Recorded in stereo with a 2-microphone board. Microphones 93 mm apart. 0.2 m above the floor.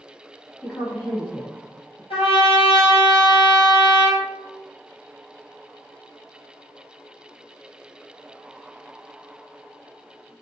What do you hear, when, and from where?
0.6 s a woman speaking: 10° left (ahead or behind), 1.4 m; by 2.0 s 50° left (ahead or behind), 1.9 m
2.1 s a trumpet: 85° left, 1.5 m